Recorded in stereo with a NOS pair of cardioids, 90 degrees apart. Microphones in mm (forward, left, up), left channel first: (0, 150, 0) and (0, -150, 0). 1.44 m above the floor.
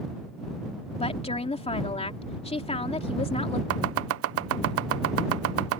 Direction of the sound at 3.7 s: 50° right.